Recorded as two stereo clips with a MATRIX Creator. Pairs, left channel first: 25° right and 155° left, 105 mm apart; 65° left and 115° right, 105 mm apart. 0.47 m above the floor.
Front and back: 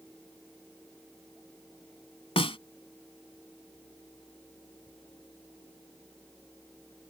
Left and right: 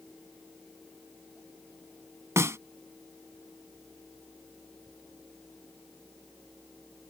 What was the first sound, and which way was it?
A snare drum, 50° right.